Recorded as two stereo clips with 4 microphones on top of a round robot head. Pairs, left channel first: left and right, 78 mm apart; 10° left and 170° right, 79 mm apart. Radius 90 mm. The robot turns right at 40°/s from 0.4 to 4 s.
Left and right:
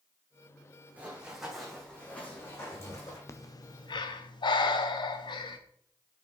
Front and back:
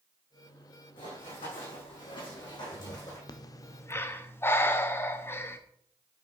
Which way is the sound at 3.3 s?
40° left.